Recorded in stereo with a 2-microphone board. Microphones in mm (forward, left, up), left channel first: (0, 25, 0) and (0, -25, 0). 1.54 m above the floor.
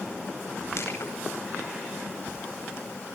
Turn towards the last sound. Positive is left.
turn(degrees=60)  # may be behind; listen again after turning